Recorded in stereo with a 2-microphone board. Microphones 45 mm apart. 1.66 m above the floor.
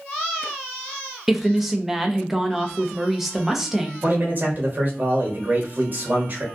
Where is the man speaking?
40° right (ahead or behind), 1.2 m.